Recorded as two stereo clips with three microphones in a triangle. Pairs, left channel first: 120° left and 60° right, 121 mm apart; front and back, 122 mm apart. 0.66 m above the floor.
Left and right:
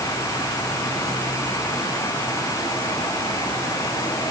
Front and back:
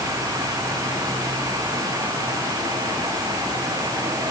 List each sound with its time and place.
Only background noise.